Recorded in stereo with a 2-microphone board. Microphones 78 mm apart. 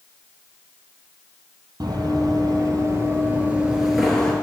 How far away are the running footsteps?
About 2.5 m.